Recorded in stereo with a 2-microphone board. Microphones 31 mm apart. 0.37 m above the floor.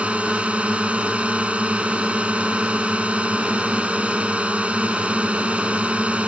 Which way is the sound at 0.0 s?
45° right (ahead or behind).